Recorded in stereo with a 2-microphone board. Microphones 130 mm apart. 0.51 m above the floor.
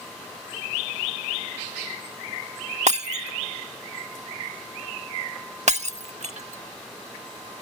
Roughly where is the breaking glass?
Right.